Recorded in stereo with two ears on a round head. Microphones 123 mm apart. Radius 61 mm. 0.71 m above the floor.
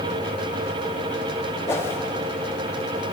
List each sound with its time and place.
1.7 s a whoosh: 20° left (ahead or behind), 1.0 m